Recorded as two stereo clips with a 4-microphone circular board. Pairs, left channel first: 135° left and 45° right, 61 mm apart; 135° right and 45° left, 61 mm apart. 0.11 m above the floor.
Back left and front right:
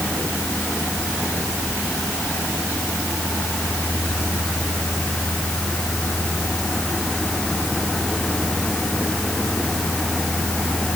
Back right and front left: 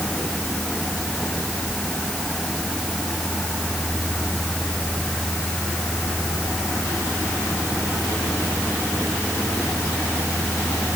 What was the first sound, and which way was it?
Only background noise.